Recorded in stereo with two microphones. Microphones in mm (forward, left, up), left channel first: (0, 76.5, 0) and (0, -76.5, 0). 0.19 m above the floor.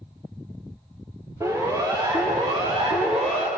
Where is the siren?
20° right (ahead or behind), 5.5 m; by 3.5 s 55° right (ahead or behind), 5 m.